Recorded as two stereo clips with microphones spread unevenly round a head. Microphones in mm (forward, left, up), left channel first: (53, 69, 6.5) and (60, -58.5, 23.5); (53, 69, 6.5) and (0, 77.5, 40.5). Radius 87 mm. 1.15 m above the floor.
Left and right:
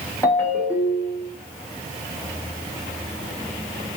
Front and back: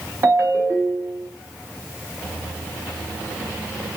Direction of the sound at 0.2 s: 175° left.